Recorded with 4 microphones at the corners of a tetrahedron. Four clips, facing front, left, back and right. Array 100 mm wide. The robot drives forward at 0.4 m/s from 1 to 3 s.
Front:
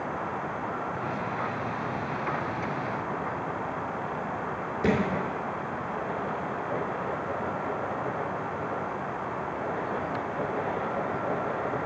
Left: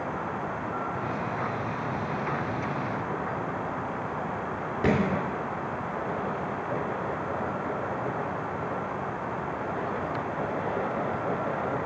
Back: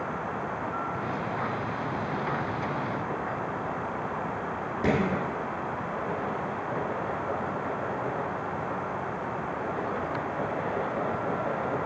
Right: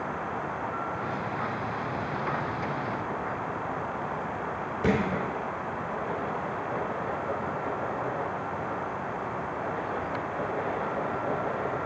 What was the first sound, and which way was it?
A thud, 115° left.